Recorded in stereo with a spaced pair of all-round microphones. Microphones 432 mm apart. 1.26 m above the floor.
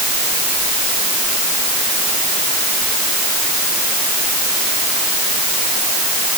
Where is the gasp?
I don't hear a gasp.